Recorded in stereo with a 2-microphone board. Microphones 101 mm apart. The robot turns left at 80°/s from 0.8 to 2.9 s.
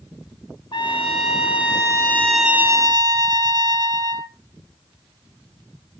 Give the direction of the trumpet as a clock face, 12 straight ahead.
8 o'clock.